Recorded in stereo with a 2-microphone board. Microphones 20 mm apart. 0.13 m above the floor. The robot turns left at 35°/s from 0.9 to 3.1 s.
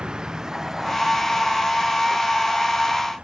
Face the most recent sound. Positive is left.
turn(degrees=-75)  # may be behind; listen again after turning